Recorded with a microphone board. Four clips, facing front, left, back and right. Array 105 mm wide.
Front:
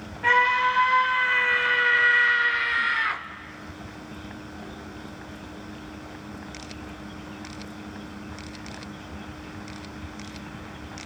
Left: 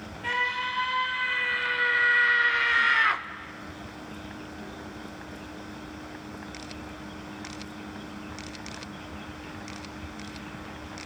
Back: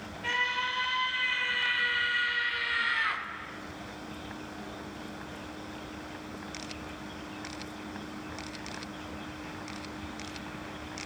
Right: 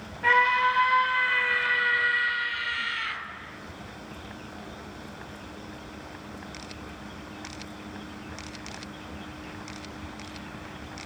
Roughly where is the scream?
Ahead right.